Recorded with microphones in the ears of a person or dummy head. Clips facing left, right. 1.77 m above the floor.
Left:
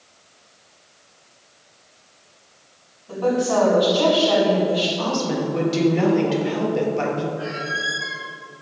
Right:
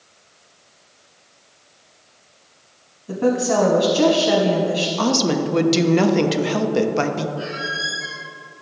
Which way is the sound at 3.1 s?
45° right (ahead or behind).